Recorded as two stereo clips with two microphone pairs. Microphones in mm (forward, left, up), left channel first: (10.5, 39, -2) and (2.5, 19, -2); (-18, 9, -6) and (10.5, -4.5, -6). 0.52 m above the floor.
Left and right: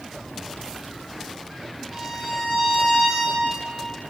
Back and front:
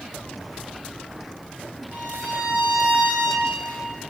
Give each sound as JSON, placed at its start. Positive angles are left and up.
{"t": 1.9, "sound": "a violin", "azimuth_deg": -35, "distance_m": 4.0}